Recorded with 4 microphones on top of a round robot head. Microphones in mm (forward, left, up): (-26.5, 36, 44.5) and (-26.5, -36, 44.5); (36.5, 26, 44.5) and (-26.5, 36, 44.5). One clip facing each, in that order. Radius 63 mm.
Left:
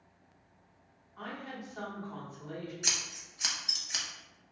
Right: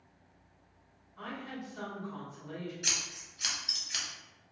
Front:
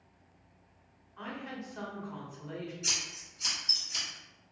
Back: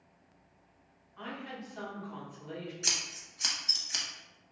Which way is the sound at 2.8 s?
150° left.